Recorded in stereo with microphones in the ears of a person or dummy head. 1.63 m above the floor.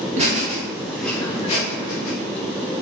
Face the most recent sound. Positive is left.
turn(degrees=60)  # may be behind; listen again after turning